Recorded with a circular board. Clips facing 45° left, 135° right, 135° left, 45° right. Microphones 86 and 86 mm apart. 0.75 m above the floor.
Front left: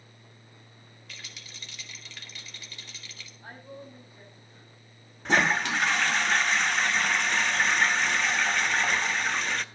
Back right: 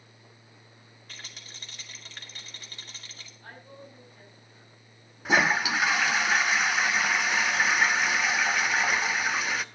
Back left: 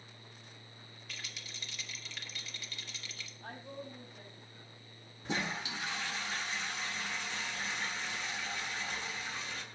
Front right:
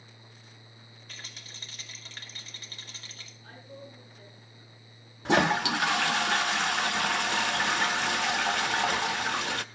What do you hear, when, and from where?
1.1 s a rattle: 90° right, 2 m
3.4 s a woman speaking: 120° left, 6 m
5.2 s a toilet flushing: 50° right, 0.5 m